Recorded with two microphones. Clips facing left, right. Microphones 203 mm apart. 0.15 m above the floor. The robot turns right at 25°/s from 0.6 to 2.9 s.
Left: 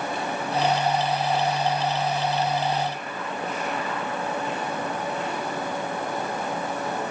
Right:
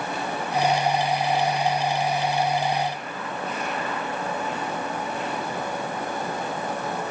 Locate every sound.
Only background noise.